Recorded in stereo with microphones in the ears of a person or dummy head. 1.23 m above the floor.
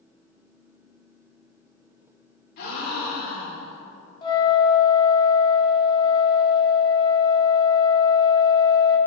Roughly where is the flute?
Left.